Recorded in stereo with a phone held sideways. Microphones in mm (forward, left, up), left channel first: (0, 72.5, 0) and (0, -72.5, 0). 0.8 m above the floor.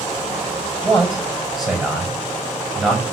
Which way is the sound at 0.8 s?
Centre (ahead or behind).